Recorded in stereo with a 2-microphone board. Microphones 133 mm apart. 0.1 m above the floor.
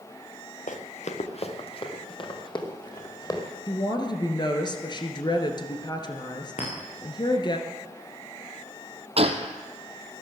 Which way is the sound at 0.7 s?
70° left (ahead or behind).